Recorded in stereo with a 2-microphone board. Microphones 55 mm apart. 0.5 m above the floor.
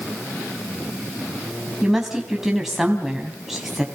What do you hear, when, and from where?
1.8 s a woman speaking: 5° right (ahead or behind), 3.5 m